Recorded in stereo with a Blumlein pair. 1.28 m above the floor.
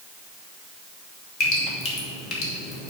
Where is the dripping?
30° left, 2 m.